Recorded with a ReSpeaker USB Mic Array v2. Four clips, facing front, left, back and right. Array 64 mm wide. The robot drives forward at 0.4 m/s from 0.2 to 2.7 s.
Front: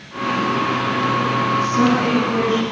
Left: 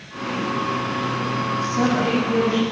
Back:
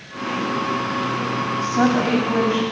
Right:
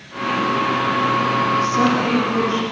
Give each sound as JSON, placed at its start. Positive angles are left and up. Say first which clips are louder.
{"t": 1.6, "sound": "a woman speaking", "louder": "right 3 dB, back 1 dB", "azimuth_deg": 170, "distance_m": 6.5}